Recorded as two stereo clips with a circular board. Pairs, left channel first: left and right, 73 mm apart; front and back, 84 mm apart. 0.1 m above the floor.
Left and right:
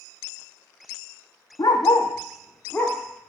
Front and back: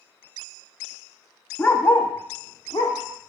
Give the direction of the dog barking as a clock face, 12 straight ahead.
10 o'clock.